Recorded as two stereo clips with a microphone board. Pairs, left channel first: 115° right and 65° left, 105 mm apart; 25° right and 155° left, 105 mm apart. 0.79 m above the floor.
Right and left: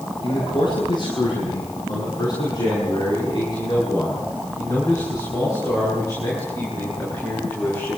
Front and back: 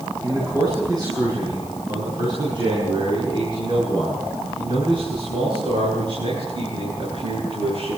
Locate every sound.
0.2 s a man speaking: 145° right, 7.5 m; by 8.0 s straight behind, 11 m